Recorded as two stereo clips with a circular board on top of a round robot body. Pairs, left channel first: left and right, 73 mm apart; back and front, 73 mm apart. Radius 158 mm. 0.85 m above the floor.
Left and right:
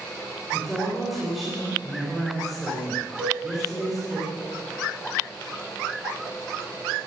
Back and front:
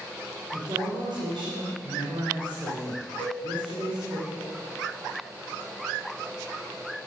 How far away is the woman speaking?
About 3.5 m.